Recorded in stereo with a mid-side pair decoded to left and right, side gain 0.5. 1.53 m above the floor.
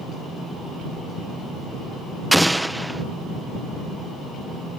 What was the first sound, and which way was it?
An explosion, 5° right.